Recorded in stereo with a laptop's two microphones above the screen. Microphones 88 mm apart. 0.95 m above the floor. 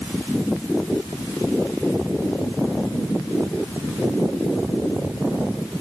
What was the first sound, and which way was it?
Only background noise.